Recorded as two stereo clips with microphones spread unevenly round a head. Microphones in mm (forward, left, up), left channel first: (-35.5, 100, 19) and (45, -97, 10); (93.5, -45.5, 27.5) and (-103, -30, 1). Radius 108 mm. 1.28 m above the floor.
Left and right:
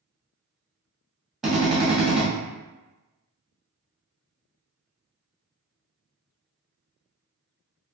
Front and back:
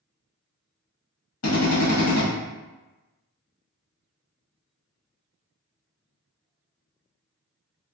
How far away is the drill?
About 1.3 m.